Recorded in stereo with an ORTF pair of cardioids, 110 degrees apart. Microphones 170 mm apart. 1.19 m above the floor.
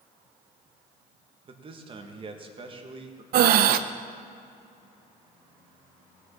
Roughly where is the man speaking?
Ahead right.